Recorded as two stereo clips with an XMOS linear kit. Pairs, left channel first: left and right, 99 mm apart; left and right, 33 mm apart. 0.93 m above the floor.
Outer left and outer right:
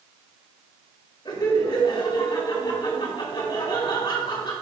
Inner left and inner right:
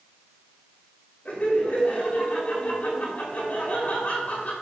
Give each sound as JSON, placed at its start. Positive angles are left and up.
{"t": 1.2, "sound": "laughter", "side_deg": 45, "distance_m": 5.5}